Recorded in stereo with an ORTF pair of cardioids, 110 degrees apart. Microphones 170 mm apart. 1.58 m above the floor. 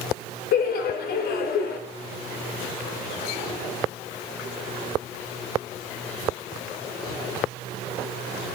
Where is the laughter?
65° left, 1.2 m.